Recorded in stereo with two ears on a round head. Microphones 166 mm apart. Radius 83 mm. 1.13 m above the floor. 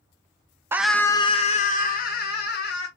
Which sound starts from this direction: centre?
A scream, at 0.7 s.